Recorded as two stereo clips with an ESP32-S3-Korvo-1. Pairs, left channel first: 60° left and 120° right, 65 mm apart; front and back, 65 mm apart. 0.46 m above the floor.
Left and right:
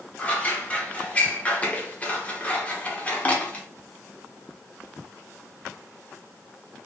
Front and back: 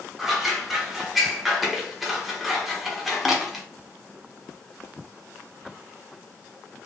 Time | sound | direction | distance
0.2 | scissors | 100° left | 0.9 m